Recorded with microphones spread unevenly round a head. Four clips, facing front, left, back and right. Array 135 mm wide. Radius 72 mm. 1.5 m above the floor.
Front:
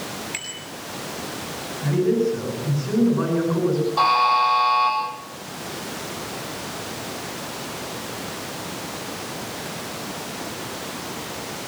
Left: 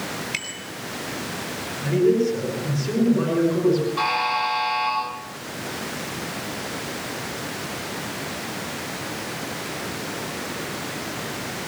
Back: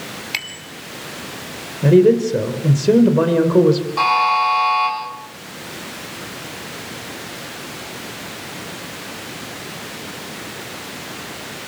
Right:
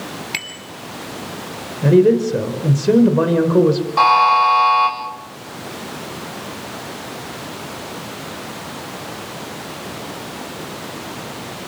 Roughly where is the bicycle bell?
Behind.